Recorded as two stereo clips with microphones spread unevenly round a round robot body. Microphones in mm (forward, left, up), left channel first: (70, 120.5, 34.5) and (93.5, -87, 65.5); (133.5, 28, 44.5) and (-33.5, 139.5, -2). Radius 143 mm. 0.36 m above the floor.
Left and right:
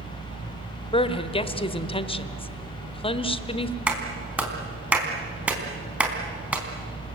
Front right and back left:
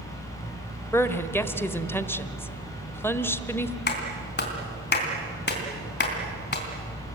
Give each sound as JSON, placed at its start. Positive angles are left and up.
{"t": 0.9, "sound": "a woman speaking", "azimuth_deg": 55, "distance_m": 1.5}
{"t": 3.9, "sound": "a clap", "azimuth_deg": 0, "distance_m": 3.5}